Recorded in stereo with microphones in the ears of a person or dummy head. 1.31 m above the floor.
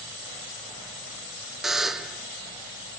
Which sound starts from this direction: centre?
A buzzer, at 1.6 s.